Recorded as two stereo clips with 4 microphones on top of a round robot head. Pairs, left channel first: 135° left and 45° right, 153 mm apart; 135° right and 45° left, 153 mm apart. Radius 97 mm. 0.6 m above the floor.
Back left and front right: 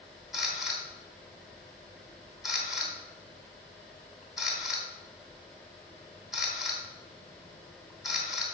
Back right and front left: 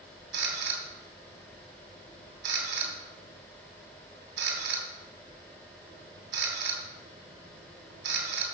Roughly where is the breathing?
I don't hear breathing.